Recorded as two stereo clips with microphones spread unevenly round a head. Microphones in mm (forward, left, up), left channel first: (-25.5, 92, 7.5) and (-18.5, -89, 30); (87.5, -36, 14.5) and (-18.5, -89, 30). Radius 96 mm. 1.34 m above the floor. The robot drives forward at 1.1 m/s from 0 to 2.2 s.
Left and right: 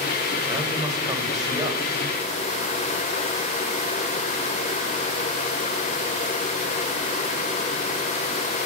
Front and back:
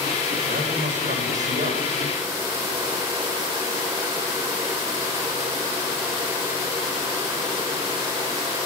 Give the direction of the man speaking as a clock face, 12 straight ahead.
5 o'clock.